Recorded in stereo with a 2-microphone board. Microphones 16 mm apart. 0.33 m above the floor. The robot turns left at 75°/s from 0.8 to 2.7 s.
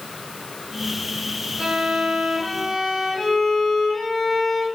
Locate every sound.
1.6 s a violin: 95° right, 1.7 m; by 4.7 s 175° right, 1.7 m